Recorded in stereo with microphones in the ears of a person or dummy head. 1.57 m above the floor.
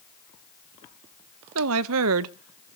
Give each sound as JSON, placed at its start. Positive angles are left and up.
{"t": 1.6, "sound": "a woman speaking", "side_deg": -80, "distance_m": 0.7}